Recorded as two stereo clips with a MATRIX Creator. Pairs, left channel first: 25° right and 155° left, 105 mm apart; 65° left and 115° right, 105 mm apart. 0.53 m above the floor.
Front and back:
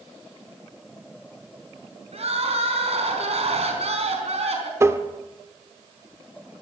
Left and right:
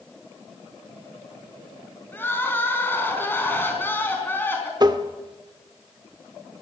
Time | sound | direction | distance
2.1 | crying | 140° left | 4 m
4.8 | tapping | 145° right | 1.3 m